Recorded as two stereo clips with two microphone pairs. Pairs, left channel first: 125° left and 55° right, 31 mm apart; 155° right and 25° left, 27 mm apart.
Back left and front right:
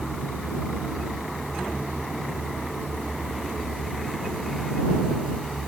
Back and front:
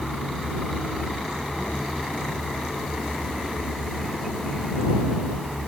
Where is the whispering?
No whispering in this recording.